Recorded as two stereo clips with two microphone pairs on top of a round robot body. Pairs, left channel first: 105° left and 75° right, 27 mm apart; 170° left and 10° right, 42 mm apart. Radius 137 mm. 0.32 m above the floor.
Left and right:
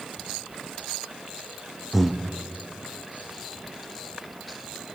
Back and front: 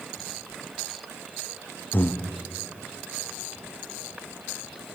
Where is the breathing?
160° right, 0.7 m.